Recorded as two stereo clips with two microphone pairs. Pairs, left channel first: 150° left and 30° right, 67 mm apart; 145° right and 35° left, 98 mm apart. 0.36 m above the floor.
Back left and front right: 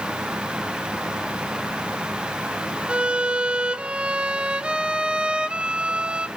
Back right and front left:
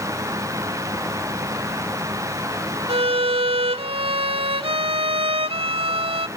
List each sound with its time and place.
2.9 s a violin: 50° left, 0.6 m